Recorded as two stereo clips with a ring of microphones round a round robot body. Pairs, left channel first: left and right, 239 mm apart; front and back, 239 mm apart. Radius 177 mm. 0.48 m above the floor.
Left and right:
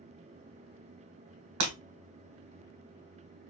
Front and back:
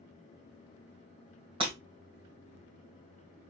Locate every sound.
1.6 s breaking glass: 110° right, 1.1 m